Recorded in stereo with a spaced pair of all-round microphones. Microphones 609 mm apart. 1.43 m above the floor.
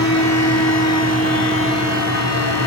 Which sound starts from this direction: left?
A fan, at 0.0 s.